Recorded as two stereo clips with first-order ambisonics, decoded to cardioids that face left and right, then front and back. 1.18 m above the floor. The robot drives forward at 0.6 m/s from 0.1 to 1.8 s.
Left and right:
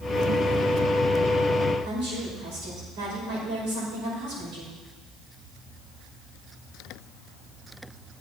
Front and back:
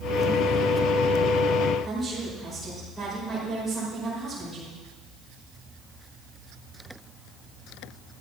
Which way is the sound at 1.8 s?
95° right.